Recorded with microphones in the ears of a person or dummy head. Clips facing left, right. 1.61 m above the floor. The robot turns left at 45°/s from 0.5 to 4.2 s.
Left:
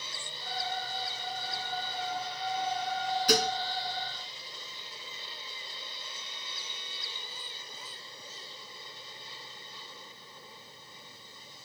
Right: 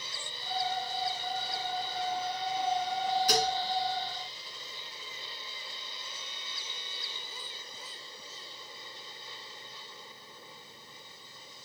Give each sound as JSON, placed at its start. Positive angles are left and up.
{"t": 3.3, "sound": "dishes clattering", "side_deg": 55, "distance_m": 1.6}